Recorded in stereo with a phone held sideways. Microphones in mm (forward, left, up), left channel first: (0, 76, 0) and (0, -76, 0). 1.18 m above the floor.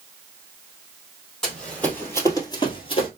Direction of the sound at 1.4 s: 5° left (ahead or behind).